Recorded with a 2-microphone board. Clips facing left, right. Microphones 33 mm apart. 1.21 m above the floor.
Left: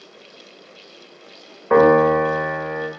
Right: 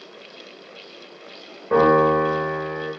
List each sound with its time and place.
1.7 s a piano: 50° left (ahead or behind), 0.8 m